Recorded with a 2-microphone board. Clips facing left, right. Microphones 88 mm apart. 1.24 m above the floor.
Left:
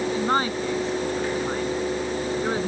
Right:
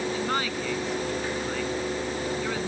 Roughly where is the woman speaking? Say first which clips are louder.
Left 5 dB; left.